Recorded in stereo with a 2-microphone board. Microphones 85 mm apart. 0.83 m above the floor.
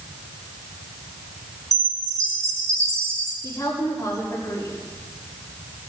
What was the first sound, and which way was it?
A chime, 35° right (ahead or behind).